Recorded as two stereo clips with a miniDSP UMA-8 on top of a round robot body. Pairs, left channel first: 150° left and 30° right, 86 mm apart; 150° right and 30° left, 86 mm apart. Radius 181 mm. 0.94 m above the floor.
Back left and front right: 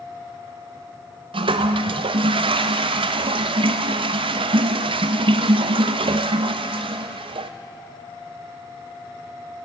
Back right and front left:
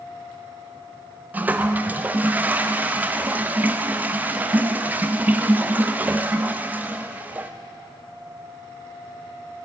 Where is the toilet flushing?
40° right, 0.5 m.